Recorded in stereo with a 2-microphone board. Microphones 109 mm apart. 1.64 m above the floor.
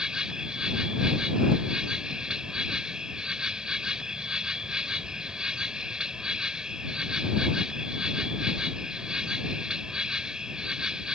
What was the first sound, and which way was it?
An insect, 5° right (ahead or behind).